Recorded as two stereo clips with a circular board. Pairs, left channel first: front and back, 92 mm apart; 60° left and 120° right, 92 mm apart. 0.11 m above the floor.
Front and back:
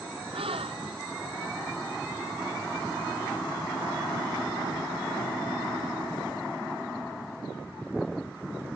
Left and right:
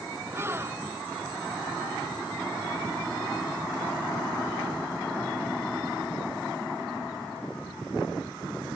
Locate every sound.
0.3 s a gasp: 175° left